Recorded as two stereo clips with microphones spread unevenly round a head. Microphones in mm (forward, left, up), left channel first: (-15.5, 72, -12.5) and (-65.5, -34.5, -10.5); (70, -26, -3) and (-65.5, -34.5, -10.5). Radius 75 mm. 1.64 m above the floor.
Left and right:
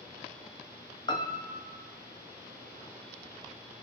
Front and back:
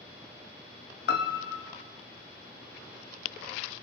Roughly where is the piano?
Ahead.